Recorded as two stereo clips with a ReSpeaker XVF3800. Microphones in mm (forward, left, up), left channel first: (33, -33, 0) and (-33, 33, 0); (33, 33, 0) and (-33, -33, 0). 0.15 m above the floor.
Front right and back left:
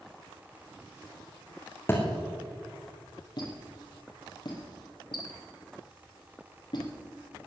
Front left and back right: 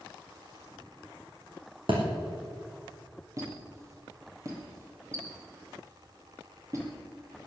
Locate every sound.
1.9 s a thud: 110° right, 4 m
3.4 s a squeak: 80° right, 3.5 m